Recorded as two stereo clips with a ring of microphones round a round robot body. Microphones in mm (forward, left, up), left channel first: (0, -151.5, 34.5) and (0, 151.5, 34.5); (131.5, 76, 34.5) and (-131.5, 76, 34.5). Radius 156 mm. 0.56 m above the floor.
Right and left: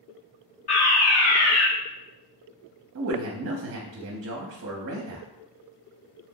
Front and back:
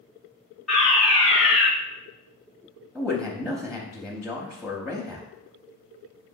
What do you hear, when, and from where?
0.7 s a fire alarm: 85° right, 1.8 m
3.0 s a man speaking: 85° left, 0.7 m